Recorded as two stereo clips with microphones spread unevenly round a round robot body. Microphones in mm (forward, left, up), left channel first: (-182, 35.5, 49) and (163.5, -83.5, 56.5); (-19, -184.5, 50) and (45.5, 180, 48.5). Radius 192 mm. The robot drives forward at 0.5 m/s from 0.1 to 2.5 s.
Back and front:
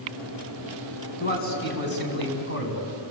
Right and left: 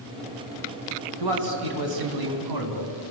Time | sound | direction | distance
1.2 | a man speaking | 95° left | 4.5 m